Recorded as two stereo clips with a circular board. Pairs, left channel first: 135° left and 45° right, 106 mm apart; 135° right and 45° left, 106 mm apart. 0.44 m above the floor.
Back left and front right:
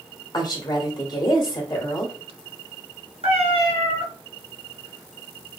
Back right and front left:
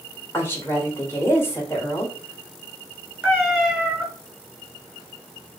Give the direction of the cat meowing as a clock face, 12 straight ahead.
1 o'clock.